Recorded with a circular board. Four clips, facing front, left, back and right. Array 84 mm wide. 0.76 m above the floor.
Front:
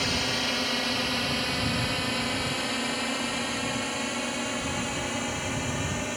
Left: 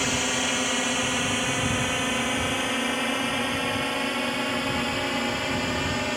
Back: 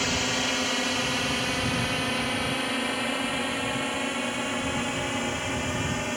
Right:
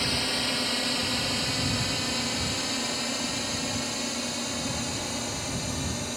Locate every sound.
0.0 s a drone: 110° left; by 6.2 s 100° left